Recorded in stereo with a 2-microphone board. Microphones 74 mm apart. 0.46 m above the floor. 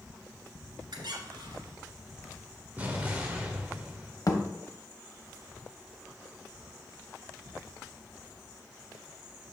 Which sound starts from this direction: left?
A thud, at 4.3 s.